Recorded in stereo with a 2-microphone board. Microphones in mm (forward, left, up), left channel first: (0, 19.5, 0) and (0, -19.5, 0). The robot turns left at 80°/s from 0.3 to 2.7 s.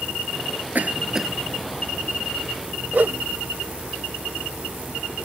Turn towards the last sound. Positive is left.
turn(degrees=-55)  # may be behind; listen again after turning